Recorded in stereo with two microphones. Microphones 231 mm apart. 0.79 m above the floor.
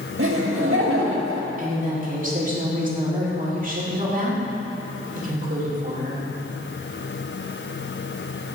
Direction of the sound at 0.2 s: 65° right (ahead or behind).